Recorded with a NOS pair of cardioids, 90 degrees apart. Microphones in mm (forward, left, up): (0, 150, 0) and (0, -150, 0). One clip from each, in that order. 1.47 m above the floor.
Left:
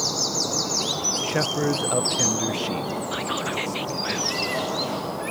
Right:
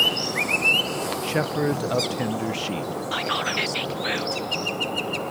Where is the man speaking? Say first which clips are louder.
Right 2 dB; 5° right.